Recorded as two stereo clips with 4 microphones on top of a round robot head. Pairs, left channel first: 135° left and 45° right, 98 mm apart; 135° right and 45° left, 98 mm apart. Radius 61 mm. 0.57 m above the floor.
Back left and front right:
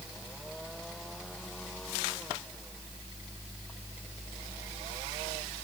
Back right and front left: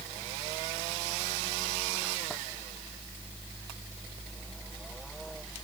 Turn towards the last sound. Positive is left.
No sound to turn to.